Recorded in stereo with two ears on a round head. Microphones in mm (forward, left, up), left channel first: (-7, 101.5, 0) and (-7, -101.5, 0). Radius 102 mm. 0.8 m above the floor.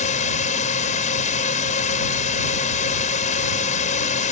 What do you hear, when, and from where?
0.0 s a drone: 35° left (ahead or behind)